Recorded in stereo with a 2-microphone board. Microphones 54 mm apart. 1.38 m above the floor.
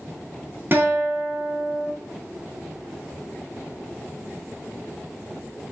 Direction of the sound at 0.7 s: 40° right (ahead or behind).